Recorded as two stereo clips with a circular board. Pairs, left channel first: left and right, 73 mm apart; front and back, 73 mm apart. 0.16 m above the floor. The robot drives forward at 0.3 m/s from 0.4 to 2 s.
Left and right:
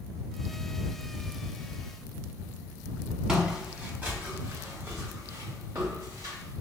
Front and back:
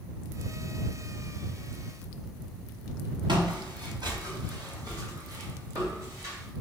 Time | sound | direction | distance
3.3 | footsteps | 170° right | 1.3 m